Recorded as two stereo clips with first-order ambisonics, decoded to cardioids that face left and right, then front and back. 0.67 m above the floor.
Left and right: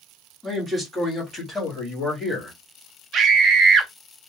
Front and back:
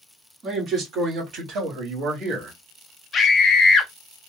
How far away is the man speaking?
About 1.2 m.